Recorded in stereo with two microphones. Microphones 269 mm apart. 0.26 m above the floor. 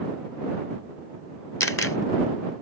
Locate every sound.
1.6 s a camera shutter: 55° left (ahead or behind)